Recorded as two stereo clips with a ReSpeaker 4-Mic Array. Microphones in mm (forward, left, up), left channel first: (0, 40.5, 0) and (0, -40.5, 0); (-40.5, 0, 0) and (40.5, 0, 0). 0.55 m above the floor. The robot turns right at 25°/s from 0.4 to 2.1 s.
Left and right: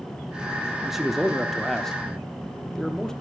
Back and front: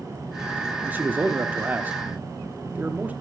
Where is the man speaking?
10° right, 1.0 m; by 3.1 s 20° left, 1.0 m.